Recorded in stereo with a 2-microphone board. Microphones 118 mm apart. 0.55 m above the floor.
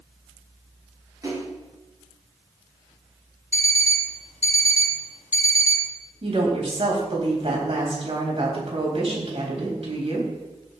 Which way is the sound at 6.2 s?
60° right (ahead or behind).